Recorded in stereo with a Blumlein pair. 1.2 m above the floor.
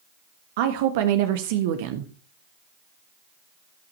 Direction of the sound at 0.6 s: 50° right.